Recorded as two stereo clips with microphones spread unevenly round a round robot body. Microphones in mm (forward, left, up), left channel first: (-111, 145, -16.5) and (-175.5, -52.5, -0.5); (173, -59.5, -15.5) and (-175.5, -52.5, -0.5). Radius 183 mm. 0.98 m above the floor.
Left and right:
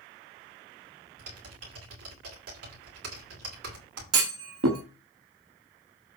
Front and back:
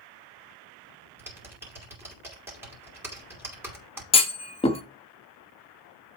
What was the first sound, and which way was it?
Typing on a keyboard, 95° right.